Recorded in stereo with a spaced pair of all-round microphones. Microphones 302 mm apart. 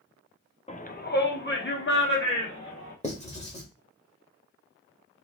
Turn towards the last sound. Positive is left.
turn(degrees=20)  # may be behind; listen again after turning